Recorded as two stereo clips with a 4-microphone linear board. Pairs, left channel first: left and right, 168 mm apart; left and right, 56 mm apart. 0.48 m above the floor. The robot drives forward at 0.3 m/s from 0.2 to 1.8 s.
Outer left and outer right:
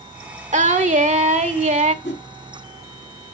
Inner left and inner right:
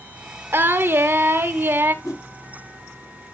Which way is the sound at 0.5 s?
45° right (ahead or behind).